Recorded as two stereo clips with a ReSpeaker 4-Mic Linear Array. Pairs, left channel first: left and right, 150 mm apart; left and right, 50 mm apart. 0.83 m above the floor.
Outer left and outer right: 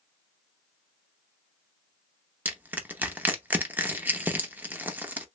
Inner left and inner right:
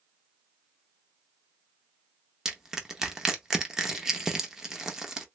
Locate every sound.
2.5 s crushing: 10° right (ahead or behind), 0.6 m